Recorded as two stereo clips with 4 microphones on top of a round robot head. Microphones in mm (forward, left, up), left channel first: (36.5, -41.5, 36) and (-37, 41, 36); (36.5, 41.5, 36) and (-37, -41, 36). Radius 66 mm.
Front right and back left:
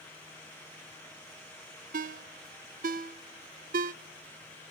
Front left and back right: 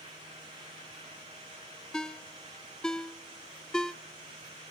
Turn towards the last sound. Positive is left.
turn(degrees=135)